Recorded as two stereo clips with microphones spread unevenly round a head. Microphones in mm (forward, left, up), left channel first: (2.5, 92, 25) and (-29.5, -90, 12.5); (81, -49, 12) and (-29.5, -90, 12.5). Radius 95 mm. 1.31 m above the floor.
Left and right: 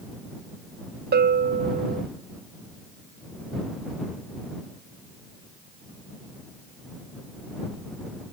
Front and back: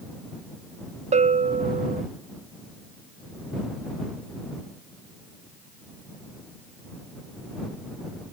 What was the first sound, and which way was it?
A bell, 140° right.